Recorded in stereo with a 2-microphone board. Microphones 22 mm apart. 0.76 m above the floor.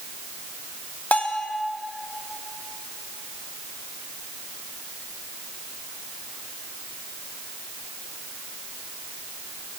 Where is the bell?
75° left (ahead or behind), 0.7 m.